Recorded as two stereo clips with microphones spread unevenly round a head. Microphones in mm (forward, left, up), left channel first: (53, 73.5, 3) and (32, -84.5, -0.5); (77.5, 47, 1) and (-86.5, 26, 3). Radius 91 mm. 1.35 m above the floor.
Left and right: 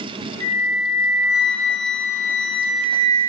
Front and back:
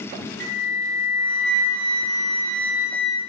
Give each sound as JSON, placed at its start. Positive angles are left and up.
{"t": 0.4, "sound": "a flute", "azimuth_deg": 150, "distance_m": 2.5}